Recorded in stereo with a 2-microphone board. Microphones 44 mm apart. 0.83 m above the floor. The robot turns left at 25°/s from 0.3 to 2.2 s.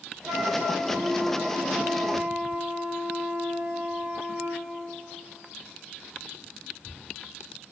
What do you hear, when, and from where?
0.2 s a flute: 65° right, 1.9 m; by 4.6 s 110° right, 1.9 m